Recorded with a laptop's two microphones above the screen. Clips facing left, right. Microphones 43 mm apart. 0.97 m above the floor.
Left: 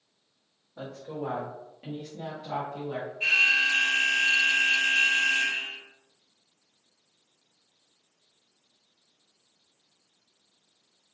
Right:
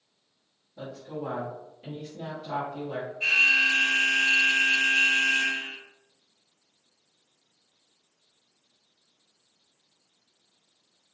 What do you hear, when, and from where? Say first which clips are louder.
0.8 s a woman speaking: even; 80° left, 1.3 m; by 3.1 s centre (ahead or behind), 1.3 m
3.2 s an alarm: right 1 dB; 20° left (ahead or behind), 1.7 m